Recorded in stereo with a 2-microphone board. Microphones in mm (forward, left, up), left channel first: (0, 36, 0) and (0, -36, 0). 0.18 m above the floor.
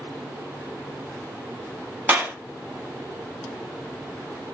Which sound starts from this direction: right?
A clap, at 2.1 s.